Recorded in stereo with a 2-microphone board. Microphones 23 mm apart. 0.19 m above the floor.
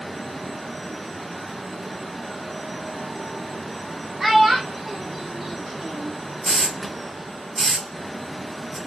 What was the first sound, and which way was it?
A child speaking, 20° right (ahead or behind).